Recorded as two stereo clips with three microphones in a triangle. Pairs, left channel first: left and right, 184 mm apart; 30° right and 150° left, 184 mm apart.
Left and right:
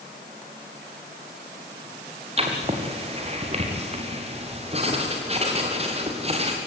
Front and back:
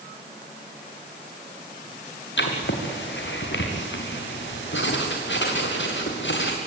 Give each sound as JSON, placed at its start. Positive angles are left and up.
{"t": 2.4, "sound": "writing", "azimuth_deg": -35, "distance_m": 3.5}